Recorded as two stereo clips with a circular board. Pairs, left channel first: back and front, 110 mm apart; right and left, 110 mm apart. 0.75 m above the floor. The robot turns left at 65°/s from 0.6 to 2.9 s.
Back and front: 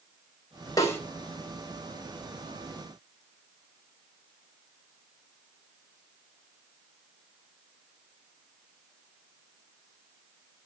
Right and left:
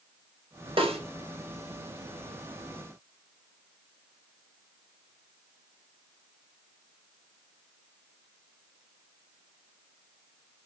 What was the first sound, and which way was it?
A snare drum, 120° left.